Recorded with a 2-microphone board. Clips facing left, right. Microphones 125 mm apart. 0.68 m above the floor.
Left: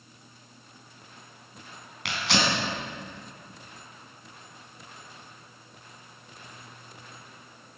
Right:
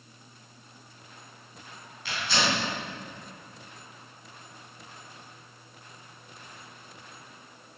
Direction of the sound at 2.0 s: 80° left.